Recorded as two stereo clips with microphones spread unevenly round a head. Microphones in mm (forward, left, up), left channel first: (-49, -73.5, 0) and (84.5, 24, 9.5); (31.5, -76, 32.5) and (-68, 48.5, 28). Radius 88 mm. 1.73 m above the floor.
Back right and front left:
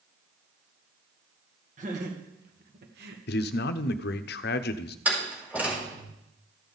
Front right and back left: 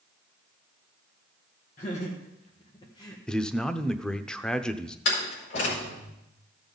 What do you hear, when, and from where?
1.8 s laughter: 5° right, 2 m; by 3.2 s 20° left, 1.1 m
3.3 s a man speaking: 135° right, 0.7 m
5.0 s a door slam: 45° right, 4.5 m